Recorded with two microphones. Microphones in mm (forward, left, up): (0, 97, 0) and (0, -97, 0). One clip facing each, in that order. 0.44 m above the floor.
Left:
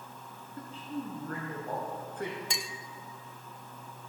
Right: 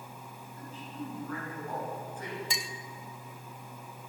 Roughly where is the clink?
Centre.